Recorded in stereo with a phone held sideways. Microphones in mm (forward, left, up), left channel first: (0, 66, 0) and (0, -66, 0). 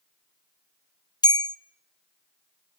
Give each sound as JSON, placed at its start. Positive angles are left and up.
{"t": 1.2, "sound": "a bell", "side_deg": 30, "distance_m": 0.6}